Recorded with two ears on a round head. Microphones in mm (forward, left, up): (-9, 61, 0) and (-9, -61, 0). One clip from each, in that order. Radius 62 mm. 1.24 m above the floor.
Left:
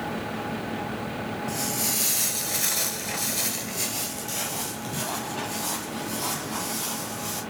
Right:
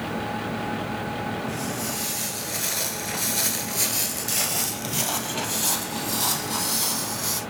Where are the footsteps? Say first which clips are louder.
Left 1 dB; 40° left (ahead or behind), 1.6 m; by 7.4 s 60° right (ahead or behind), 3.5 m.